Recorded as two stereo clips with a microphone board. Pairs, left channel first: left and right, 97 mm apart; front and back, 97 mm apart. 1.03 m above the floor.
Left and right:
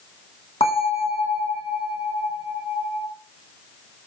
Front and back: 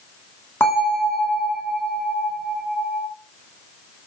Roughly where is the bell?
Ahead left.